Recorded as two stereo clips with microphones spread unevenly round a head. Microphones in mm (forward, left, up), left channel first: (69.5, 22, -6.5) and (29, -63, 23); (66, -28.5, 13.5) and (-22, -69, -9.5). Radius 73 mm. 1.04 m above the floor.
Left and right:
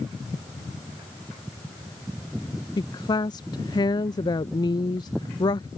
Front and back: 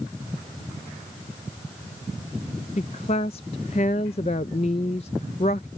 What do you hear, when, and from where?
2.8 s a woman speaking: 65° left